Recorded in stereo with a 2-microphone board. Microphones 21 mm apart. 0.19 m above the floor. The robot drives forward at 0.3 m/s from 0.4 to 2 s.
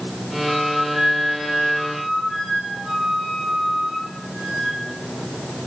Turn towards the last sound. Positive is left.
turn(degrees=-25)  # may be behind; listen again after turning